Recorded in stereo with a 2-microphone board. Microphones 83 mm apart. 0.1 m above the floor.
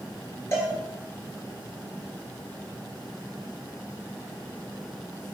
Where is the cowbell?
35° left (ahead or behind), 1.1 m.